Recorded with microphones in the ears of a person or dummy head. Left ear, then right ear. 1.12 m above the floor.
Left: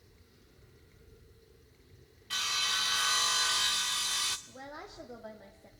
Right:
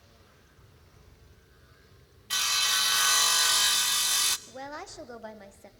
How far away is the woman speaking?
About 3 m.